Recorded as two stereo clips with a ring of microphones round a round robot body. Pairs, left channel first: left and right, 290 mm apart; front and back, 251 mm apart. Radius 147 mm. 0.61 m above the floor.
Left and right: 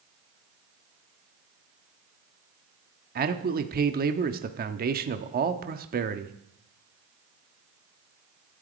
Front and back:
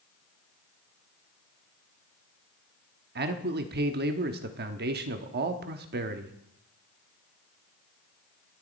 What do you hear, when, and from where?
3.1 s a man speaking: 140° right, 1.0 m